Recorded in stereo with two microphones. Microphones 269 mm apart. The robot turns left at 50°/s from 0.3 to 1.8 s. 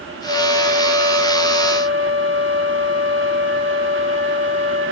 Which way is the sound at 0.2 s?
30° right.